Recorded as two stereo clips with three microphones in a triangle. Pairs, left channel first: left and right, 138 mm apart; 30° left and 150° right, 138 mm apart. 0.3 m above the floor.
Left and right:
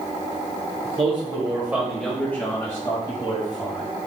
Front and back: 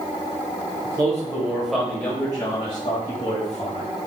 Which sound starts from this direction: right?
A man speaking, at 0.8 s.